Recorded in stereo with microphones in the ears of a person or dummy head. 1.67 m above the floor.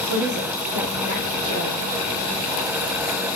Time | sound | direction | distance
0.1 | a woman speaking | 80° right | 0.8 m